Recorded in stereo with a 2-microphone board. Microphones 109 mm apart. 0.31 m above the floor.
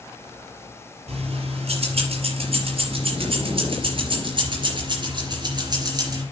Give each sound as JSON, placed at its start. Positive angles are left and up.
{"t": 1.1, "sound": "keys jangling", "side_deg": -75, "distance_m": 5.0}